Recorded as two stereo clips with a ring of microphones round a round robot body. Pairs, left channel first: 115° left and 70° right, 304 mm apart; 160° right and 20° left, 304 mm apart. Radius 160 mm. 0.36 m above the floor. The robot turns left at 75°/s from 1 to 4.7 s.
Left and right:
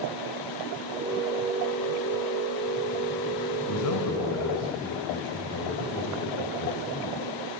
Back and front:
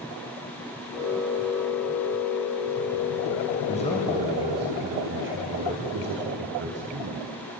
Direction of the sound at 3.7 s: 145° left.